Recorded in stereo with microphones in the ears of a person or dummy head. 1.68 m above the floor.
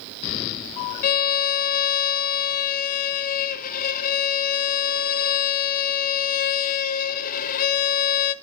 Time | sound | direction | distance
1.0 | a violin | 50° left (ahead or behind) | 0.5 m